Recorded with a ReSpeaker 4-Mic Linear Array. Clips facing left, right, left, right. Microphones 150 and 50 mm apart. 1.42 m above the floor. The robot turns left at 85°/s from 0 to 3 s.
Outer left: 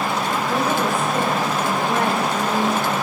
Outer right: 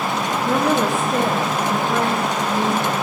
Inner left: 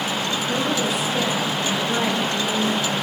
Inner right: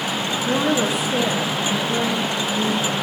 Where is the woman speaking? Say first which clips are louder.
Outer right 5 dB, inner right 5 dB; 50° right, 3 m; by 2.9 s 95° left, 3 m.